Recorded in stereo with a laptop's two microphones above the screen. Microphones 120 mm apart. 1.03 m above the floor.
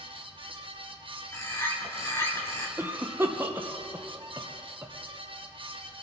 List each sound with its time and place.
0.0 s a fan: 45° right (ahead or behind), 0.7 m
1.3 s a bird: 25° left (ahead or behind), 2.5 m
2.8 s a cough: 20° right (ahead or behind), 0.7 m